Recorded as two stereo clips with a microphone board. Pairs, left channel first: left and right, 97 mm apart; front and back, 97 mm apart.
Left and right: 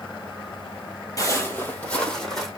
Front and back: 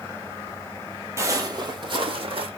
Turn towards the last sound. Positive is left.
turn(degrees=175)